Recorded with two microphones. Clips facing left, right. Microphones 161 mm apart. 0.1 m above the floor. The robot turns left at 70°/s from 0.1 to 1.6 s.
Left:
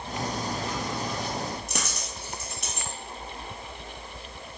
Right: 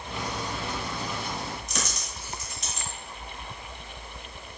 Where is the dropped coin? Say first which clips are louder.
Left 1 dB; 60° left (ahead or behind), 1.2 m.